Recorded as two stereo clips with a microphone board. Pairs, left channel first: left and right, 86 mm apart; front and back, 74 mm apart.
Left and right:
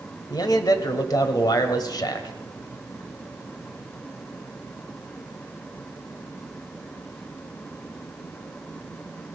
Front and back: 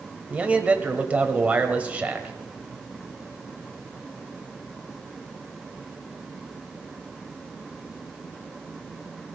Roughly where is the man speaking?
Behind left.